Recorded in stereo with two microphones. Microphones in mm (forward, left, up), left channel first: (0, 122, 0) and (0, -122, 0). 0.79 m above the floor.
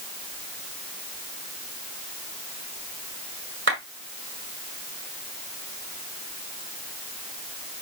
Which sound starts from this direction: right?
A clap, at 3.7 s.